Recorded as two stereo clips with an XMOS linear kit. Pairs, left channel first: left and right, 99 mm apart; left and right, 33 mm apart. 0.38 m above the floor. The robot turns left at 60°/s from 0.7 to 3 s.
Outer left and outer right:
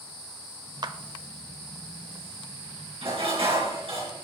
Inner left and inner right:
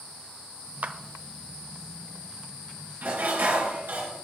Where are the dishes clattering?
70° right (ahead or behind), 4 m.